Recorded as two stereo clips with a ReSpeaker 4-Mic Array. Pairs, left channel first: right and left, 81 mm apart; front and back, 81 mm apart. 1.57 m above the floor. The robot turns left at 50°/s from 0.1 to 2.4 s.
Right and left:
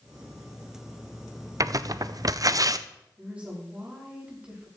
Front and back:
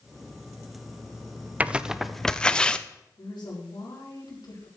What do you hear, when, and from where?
1.6 s tearing paper: 115° left, 0.5 m; by 2.9 s 75° left, 0.5 m
3.2 s a woman speaking: 15° left, 4.5 m